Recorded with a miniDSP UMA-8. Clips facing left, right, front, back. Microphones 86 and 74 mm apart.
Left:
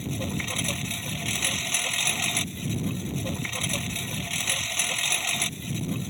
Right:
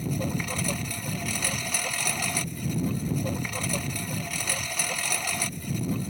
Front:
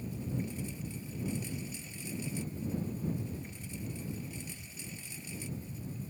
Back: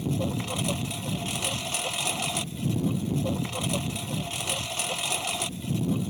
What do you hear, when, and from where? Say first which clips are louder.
0.0 s a lawn mower: right 2 dB, back 9 dB; 170° right